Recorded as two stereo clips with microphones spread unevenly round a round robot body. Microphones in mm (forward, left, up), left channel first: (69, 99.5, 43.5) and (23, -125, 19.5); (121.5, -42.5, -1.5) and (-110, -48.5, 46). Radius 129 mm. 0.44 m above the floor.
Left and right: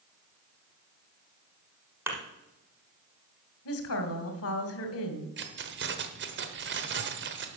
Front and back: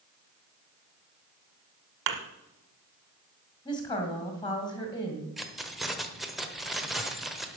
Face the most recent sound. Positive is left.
turn(degrees=-85)